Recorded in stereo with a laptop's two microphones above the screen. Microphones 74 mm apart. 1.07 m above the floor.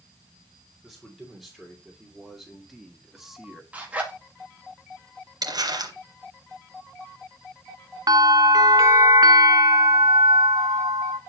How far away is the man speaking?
About 3 m.